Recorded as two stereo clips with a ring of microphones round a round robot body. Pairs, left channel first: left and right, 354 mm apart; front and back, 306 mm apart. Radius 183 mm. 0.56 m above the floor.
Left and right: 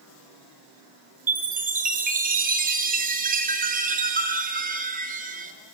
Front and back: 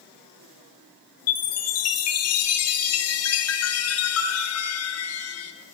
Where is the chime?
30° right, 1.9 m.